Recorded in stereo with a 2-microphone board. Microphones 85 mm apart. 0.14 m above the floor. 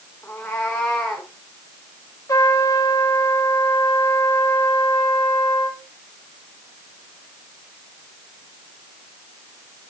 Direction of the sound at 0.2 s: 20° left (ahead or behind).